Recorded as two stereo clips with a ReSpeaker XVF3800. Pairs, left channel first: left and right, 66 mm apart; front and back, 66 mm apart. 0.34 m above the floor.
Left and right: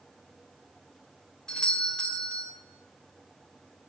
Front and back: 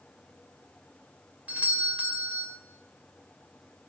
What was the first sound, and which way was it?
A doorbell, 150° left.